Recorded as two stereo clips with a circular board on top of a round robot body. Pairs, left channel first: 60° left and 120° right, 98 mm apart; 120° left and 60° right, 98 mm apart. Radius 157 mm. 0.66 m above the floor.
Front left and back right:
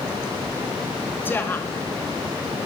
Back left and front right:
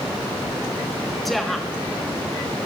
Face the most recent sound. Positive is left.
turn(degrees=35)